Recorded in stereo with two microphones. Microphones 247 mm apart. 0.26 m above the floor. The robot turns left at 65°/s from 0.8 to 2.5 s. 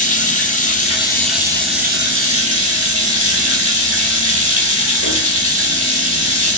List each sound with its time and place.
0.0 s running water: 30° left, 1.1 m; by 6.6 s 80° right, 1.1 m